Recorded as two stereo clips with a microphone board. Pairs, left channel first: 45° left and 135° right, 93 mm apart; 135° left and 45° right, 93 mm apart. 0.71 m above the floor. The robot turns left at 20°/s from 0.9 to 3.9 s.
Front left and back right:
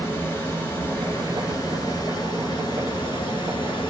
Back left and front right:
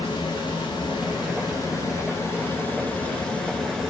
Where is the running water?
110° left, 1.2 m; by 3.9 s 50° left, 1.2 m.